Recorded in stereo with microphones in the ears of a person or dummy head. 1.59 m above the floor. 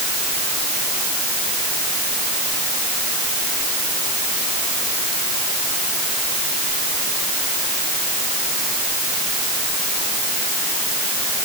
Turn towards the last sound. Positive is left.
No sound to turn to.